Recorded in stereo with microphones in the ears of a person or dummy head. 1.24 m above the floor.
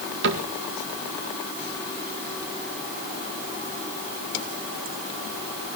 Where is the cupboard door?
60° right (ahead or behind), 1.9 m.